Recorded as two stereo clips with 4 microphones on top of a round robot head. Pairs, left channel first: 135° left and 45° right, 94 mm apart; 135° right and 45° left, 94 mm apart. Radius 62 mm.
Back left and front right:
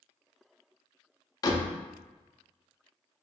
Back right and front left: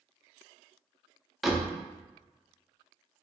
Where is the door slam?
130° left, 0.7 m.